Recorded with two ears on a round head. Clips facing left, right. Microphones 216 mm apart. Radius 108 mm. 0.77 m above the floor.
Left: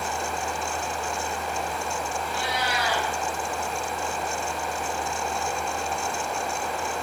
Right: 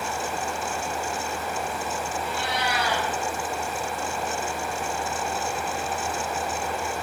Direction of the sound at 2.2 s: 50° right (ahead or behind).